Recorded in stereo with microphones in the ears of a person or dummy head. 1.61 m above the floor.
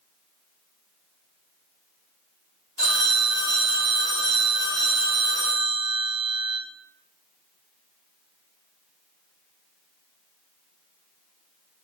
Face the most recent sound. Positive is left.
turn(degrees=25)  # may be behind; listen again after turning